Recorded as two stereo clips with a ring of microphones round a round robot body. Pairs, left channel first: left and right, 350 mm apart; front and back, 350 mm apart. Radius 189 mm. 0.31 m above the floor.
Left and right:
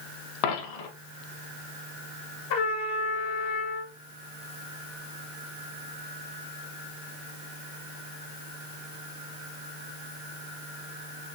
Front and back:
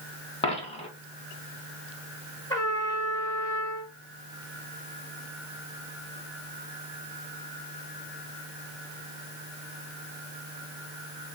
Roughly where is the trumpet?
Left.